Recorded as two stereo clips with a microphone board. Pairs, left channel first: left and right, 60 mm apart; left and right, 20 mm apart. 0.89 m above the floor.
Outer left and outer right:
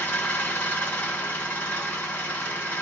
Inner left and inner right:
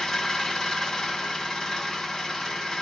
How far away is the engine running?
About 1.9 m.